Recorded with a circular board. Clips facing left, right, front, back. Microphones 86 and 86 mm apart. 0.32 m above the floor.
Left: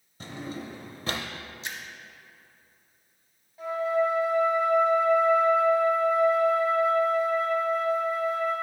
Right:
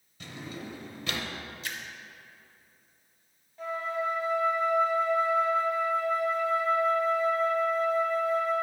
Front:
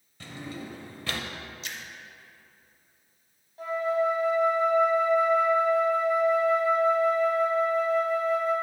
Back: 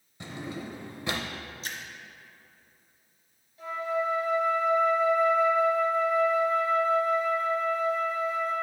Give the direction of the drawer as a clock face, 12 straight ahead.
8 o'clock.